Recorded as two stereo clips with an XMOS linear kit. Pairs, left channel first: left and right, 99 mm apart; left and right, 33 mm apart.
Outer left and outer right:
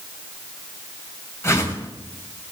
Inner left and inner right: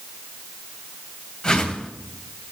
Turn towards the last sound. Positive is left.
turn(degrees=25)  # may be behind; listen again after turning